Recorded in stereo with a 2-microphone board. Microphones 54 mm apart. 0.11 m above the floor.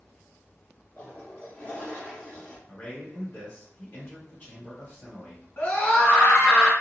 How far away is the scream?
About 1.9 m.